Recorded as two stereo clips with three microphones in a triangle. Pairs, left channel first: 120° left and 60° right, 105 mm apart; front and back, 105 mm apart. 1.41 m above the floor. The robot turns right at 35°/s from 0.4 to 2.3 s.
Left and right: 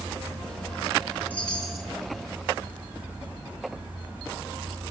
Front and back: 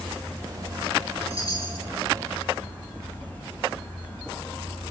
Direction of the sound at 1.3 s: 165° right.